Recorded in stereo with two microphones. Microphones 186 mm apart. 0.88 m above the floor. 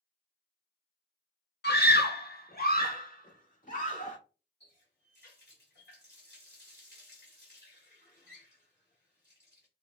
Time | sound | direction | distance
1.6 | a scream | 60° left (ahead or behind) | 0.8 m
4.6 | a running tap | 65° left (ahead or behind) | 3 m